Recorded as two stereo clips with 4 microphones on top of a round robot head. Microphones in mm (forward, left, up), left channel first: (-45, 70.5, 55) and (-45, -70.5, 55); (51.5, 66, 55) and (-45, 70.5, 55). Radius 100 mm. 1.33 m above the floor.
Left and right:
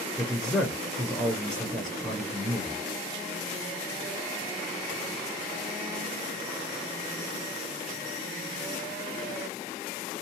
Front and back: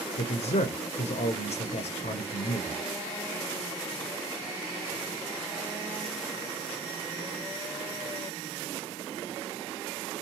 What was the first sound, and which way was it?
A man speaking, straight ahead.